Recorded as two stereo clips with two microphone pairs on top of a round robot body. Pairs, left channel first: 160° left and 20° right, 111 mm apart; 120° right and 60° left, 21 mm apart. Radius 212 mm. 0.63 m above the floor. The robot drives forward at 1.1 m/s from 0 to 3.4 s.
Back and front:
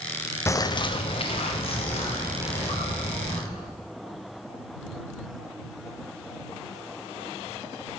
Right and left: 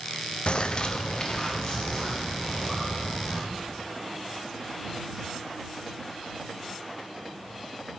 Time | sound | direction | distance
0.5 | a bird | 140° right | 0.6 m